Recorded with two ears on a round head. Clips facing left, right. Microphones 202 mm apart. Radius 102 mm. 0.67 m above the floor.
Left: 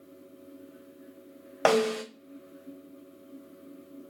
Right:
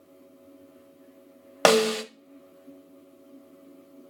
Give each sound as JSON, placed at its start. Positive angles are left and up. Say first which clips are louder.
{"t": 1.6, "sound": "a snare drum", "louder": "right 3 dB", "side_deg": -50, "distance_m": 0.6}